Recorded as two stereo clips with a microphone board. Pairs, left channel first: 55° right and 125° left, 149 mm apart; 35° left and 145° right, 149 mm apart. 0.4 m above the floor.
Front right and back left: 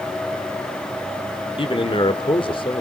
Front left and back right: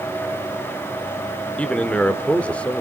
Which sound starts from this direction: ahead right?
A man speaking, at 1.6 s.